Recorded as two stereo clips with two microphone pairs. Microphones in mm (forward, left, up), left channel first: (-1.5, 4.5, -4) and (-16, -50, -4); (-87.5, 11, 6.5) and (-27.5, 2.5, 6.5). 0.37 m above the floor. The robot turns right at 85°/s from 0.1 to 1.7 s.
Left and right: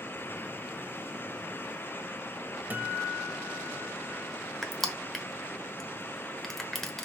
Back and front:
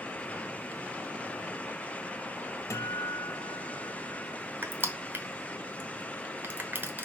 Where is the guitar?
160° right, 0.9 m.